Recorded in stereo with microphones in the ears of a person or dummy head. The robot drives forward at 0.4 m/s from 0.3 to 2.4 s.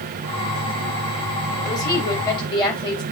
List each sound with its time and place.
1.6 s a woman speaking: 25° left (ahead or behind), 3.5 m